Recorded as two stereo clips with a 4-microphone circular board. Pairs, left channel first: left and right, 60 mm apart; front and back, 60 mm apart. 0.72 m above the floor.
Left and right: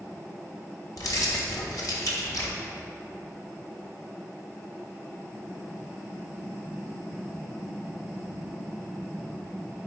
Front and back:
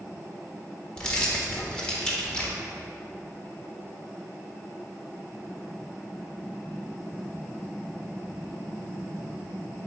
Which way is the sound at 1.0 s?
75° left.